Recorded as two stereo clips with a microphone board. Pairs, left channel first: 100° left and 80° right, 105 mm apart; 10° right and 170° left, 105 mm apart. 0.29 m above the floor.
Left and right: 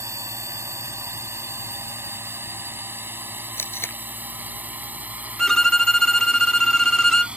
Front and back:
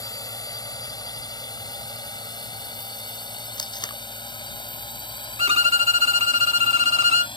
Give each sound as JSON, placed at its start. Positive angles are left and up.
{"t": 0.0, "sound": "a drone", "azimuth_deg": -35}
{"t": 3.6, "sound": "tape being pulled", "azimuth_deg": 30}
{"t": 5.4, "sound": "a violin", "azimuth_deg": -175}